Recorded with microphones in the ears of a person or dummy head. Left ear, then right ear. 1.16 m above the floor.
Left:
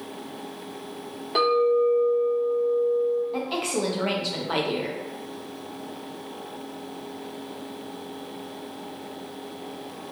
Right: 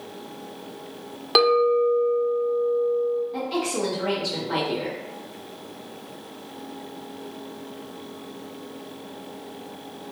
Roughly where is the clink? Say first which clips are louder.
Right 2 dB; right.